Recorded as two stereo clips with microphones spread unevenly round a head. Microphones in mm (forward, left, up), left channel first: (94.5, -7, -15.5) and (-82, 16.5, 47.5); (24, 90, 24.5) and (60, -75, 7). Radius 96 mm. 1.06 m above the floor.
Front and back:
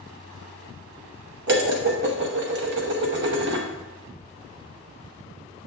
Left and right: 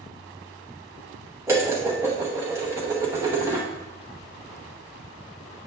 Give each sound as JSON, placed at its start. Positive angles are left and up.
{"t": 1.5, "sound": "dishes clattering", "azimuth_deg": -155, "distance_m": 0.9}